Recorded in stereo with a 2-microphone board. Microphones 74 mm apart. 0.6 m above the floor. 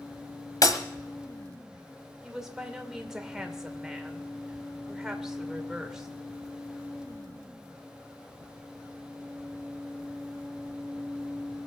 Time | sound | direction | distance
0.6 | breaking glass | 55° left (ahead or behind) | 1.5 m
2.2 | a woman speaking | 5° right (ahead or behind) | 2 m